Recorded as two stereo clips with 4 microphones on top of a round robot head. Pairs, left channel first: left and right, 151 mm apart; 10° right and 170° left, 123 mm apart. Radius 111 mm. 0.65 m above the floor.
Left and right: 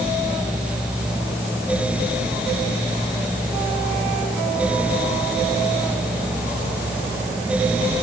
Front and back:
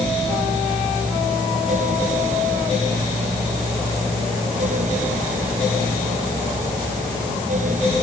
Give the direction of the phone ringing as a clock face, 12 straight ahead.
I don't hear a phone ringing.